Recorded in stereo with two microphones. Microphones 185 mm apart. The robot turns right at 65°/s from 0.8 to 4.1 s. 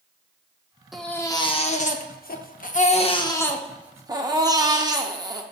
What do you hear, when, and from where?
0.9 s a baby crying: straight ahead, 0.6 m; by 5.4 s 155° right, 0.6 m